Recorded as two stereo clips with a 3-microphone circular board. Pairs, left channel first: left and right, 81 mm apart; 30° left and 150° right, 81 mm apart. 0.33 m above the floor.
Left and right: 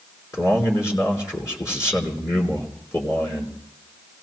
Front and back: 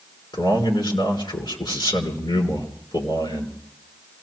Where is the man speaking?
40° left, 4 m.